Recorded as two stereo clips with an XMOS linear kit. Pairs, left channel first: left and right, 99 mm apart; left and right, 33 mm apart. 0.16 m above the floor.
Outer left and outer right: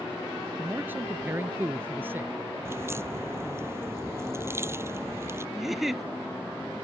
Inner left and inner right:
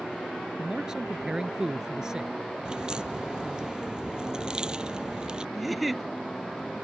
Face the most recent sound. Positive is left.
turn(degrees=-5)  # may be behind; listen again after turning